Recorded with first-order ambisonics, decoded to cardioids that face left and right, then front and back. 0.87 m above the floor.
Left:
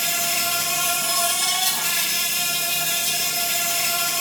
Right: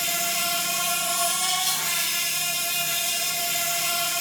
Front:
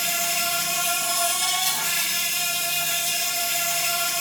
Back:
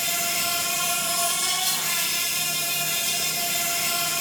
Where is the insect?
65° left, 1.0 m.